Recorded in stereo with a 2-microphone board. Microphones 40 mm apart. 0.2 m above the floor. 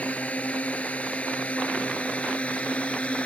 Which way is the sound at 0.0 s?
35° left (ahead or behind).